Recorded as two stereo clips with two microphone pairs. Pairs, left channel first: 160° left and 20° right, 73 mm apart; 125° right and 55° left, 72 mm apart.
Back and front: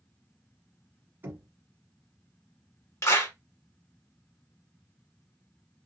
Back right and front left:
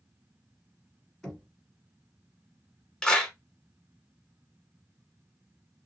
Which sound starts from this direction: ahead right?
Knocking, at 1.2 s.